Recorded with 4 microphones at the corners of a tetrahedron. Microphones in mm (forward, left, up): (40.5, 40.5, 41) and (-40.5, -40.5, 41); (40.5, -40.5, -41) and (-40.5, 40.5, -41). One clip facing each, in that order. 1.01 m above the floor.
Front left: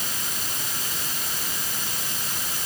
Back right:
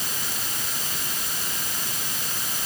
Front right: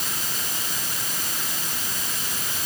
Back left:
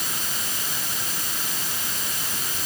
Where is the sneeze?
I don't hear a sneeze.